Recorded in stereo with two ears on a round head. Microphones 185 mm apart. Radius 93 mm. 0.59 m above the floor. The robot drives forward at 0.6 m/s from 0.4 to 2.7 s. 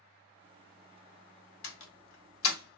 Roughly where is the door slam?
Left.